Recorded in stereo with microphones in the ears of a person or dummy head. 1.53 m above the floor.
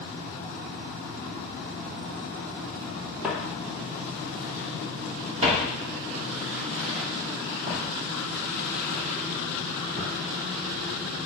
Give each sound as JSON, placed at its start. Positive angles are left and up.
{"t": 3.2, "sound": "footsteps", "side_deg": -5, "distance_m": 2.5}